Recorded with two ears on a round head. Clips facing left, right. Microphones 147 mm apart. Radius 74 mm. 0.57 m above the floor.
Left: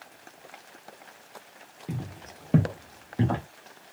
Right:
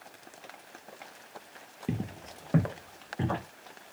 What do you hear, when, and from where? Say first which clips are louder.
1.9 s footsteps: right 3 dB; 30° right (ahead or behind), 0.6 m; by 3.4 s 45° left (ahead or behind), 1.5 m